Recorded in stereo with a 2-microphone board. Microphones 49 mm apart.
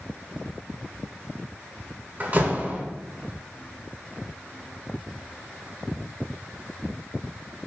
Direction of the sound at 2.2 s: 35° right (ahead or behind).